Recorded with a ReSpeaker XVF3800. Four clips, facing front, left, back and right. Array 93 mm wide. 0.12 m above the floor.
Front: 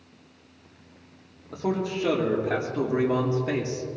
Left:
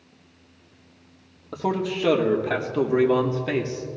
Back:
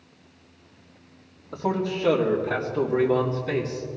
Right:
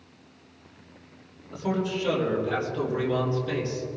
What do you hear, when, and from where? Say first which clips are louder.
1.5 s a man speaking: left 3 dB, back 1 dB; 90° left, 3.5 m; by 3.9 s 70° left, 3 m